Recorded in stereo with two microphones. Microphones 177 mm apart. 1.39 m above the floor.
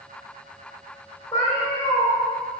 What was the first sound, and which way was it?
A cat meowing, 25° left (ahead or behind).